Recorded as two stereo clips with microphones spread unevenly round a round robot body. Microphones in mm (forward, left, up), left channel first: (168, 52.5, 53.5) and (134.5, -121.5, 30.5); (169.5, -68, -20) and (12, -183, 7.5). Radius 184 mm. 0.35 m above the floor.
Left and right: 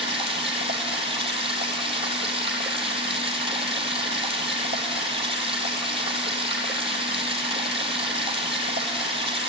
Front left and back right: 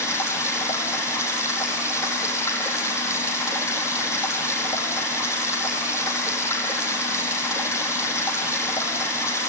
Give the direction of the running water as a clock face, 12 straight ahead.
8 o'clock.